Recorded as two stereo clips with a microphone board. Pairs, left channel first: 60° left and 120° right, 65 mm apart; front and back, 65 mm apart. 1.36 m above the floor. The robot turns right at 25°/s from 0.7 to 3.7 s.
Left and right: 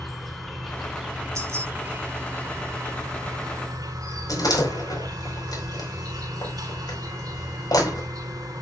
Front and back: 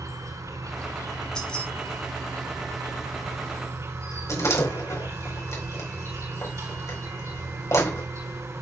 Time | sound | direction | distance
0.0 | an insect | 150° left | 3.5 m
1.4 | keys jangling | 75° right | 7 m
4.3 | a door slam | 40° left | 5 m